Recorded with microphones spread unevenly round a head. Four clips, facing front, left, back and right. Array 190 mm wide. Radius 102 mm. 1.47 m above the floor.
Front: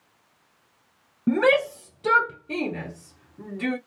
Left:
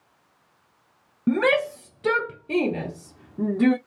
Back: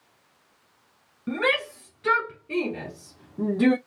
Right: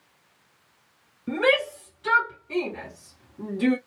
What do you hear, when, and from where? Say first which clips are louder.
1.3 s a shout: left 2 dB, front 6 dB; 55° left, 1.7 m; by 3.8 s 150° left, 0.8 m